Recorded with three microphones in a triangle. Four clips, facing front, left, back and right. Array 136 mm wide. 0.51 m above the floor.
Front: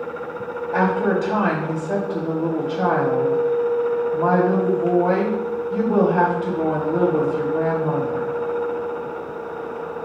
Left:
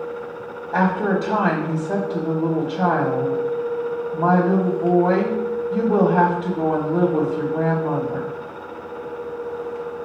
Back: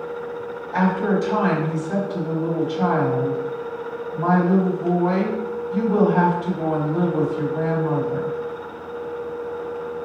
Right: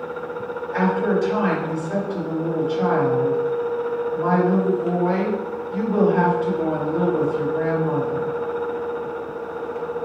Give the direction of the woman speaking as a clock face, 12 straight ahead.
11 o'clock.